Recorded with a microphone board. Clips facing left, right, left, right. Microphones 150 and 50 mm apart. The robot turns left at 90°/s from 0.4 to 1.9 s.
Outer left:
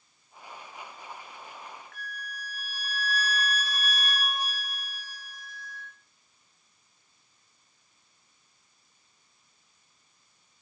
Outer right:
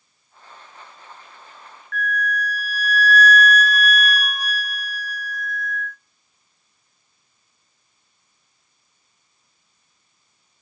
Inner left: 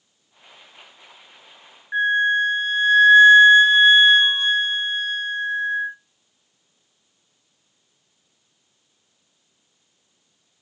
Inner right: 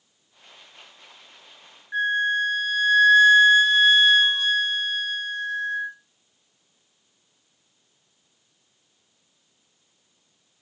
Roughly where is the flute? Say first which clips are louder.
Outer right 18 dB, inner left 4 dB; left.